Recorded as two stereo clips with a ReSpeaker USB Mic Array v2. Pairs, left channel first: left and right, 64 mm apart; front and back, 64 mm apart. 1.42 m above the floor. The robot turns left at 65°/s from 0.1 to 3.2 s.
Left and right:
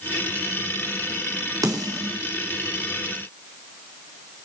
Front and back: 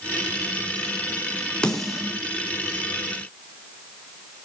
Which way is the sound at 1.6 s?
75° right.